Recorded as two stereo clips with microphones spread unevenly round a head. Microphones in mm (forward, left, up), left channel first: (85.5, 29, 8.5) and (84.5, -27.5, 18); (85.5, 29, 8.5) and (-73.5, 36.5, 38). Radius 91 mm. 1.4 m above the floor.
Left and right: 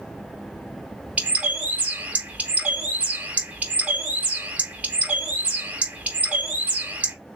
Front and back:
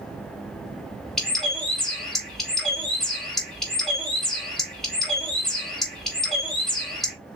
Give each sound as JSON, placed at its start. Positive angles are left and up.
{"t": 1.2, "sound": "a bird", "azimuth_deg": -105, "distance_m": 0.9}